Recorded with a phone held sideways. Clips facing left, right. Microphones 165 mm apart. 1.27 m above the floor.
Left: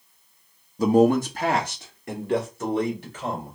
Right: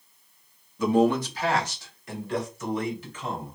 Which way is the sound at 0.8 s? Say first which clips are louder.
Left 4 dB; 35° left (ahead or behind).